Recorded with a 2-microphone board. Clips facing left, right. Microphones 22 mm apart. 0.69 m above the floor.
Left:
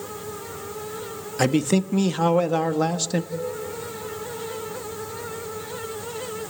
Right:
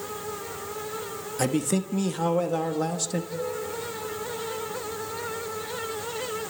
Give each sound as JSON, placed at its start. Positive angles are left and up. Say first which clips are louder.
{"t": 1.4, "sound": "a man speaking", "louder": "left 5 dB", "side_deg": 25, "distance_m": 1.2}
{"t": 3.3, "sound": "dishes clattering", "louder": "left 2 dB", "side_deg": 40, "distance_m": 6.0}